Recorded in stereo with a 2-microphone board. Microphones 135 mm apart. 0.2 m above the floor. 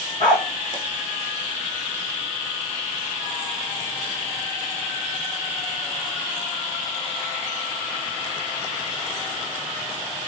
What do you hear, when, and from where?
0.2 s a dog barking: 30° left (ahead or behind), 7.5 m